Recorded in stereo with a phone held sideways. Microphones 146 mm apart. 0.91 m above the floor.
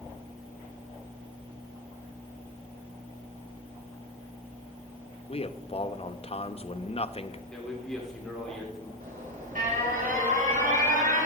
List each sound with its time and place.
5.3 s a man speaking: 45° left (ahead or behind), 0.9 m
7.5 s a man speaking: 5° left (ahead or behind), 3 m
9.0 s an alarm: 80° right, 7.5 m